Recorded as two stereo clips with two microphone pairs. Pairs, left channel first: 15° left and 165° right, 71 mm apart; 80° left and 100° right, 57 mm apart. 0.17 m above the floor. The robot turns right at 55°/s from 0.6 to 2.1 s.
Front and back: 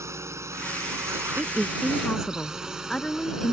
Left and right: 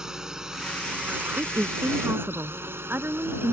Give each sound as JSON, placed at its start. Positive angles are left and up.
{"t": 0.0, "sound": "a drone", "azimuth_deg": -175}
{"t": 1.4, "sound": "a woman speaking", "azimuth_deg": -105}